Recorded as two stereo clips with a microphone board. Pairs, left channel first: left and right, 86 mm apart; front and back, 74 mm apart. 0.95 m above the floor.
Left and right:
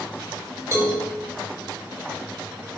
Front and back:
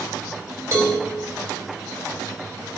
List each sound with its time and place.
0.7 s a cowbell: 135° right, 1.0 m